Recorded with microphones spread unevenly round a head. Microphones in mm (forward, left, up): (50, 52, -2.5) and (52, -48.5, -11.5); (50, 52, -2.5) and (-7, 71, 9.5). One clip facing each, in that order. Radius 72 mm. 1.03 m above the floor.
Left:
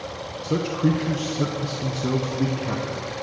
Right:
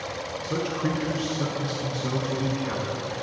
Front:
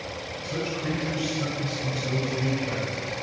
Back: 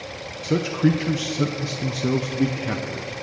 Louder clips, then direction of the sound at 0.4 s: Left 5 dB, back 10 dB; 155° left.